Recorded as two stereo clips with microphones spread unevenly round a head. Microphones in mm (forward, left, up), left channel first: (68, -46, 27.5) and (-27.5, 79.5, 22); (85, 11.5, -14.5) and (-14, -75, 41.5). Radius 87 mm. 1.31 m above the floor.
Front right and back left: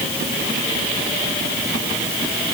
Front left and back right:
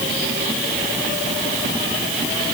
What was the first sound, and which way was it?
Only background noise.